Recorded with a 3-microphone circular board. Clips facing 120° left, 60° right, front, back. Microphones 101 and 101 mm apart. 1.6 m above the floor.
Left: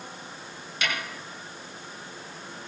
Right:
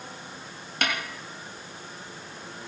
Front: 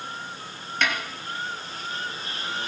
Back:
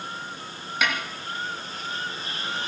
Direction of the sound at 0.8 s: 95° right.